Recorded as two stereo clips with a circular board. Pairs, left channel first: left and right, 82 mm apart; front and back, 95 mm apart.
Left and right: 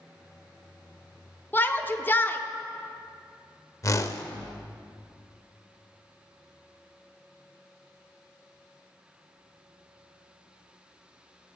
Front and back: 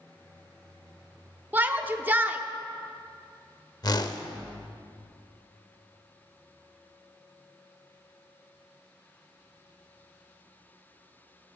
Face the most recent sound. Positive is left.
turn(degrees=40)